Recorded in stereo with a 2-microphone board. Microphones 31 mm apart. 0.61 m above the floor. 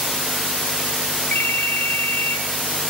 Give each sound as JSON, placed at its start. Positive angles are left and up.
{"t": 1.3, "sound": "a ringtone", "side_deg": 60, "distance_m": 1.0}